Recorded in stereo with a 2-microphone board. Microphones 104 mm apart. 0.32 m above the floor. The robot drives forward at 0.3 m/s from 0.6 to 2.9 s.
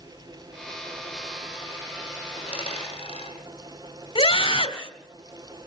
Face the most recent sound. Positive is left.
turn(degrees=65)  # may be behind; listen again after turning